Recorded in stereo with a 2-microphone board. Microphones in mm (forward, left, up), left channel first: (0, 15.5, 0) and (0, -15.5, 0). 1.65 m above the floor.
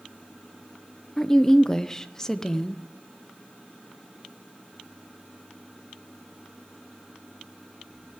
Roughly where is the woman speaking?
Centre.